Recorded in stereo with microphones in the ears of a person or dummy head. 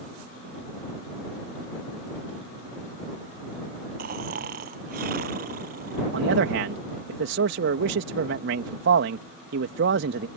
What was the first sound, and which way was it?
Snoring, 55° right (ahead or behind).